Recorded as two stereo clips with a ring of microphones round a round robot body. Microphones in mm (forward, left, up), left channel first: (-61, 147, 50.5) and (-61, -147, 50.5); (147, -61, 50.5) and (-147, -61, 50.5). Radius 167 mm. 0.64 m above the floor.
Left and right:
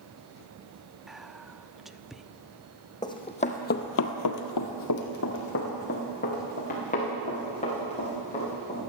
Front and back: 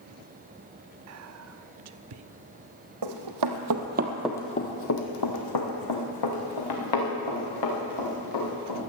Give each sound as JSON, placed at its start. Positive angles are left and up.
{"t": 1.1, "sound": "whispering", "azimuth_deg": 180, "distance_m": 0.8}
{"t": 3.0, "sound": "running footsteps", "azimuth_deg": 165, "distance_m": 1.9}